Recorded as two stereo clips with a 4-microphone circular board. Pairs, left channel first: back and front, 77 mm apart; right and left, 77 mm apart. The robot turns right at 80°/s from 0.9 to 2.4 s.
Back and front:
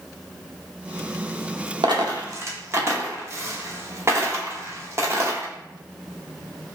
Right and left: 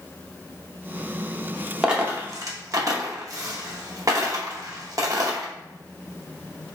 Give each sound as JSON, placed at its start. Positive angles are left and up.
{"t": 1.8, "sound": "a dropped coin", "azimuth_deg": 5, "distance_m": 0.6}